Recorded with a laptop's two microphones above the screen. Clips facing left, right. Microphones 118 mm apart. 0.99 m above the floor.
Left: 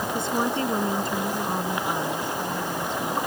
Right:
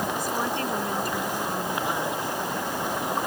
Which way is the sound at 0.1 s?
25° left (ahead or behind).